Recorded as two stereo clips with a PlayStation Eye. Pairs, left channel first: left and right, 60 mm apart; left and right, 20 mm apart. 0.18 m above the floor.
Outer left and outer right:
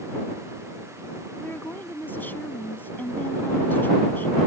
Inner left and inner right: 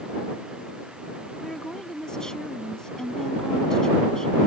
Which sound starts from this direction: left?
A woman speaking, at 1.4 s.